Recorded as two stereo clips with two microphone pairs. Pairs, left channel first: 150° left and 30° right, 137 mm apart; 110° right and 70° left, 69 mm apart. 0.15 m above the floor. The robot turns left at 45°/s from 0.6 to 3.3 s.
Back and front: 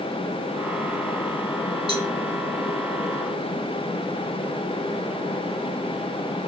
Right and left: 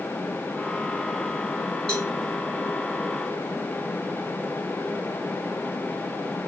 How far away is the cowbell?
About 2 m.